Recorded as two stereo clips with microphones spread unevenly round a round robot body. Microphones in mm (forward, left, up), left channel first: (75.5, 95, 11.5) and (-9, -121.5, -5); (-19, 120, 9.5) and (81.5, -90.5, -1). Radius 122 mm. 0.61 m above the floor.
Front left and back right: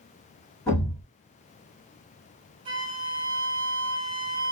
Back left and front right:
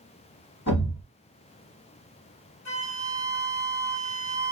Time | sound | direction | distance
0.7 | a thud | 145° left | 1.1 m
2.6 | a flute | straight behind | 1.2 m